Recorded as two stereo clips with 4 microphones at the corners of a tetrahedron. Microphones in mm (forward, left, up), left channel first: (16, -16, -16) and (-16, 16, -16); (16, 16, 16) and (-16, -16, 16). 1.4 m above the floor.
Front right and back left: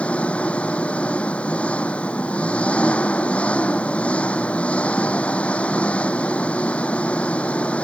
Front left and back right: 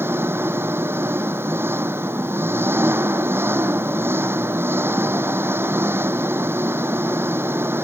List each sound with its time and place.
0.0 s an engine running: 105° right